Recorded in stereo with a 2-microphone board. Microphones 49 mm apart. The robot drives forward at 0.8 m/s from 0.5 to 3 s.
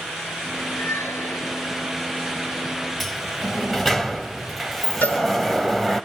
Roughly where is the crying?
I don't hear crying.